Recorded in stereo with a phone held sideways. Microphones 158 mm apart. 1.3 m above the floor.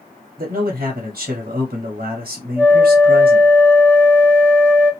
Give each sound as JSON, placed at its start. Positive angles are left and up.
{"t": 0.4, "sound": "a man speaking", "side_deg": -65, "distance_m": 1.0}
{"t": 2.6, "sound": "a flute", "side_deg": 15, "distance_m": 0.8}